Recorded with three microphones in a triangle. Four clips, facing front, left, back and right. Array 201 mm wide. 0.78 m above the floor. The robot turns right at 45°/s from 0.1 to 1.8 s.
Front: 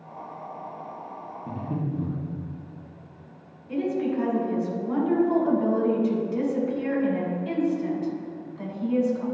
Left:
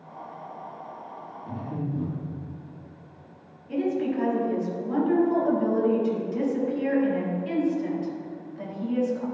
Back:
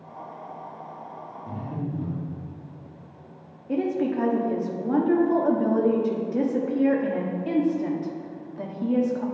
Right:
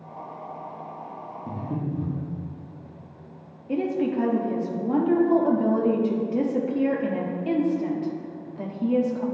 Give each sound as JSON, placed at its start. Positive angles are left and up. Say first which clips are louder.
{"t": 1.5, "sound": "breathing", "louder": "right 2 dB, front 2 dB", "azimuth_deg": -75, "distance_m": 1.3}
{"t": 3.7, "sound": "a woman speaking", "louder": "right 1 dB, back 1 dB", "azimuth_deg": -135, "distance_m": 1.0}